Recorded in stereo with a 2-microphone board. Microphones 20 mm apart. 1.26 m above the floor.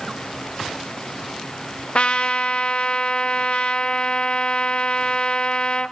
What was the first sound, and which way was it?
A trumpet, 50° left (ahead or behind).